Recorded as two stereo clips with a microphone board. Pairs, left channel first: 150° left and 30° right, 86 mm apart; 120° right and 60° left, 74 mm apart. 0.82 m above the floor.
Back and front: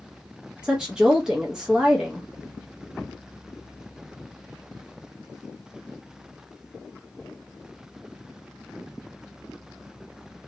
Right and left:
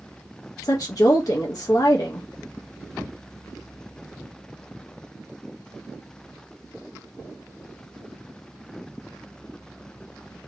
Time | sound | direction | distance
0.6 | a woman speaking | 110° right | 0.5 m